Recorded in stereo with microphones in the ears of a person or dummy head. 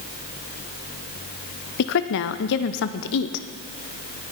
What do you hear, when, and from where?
1.8 s a woman speaking: 55° left (ahead or behind), 0.7 m